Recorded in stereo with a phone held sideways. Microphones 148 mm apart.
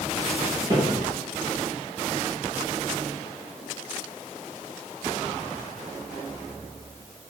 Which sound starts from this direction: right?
Footsteps, at 0.7 s.